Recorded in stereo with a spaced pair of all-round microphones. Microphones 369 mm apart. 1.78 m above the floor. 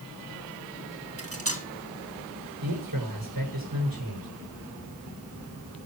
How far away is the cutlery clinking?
About 1.8 m.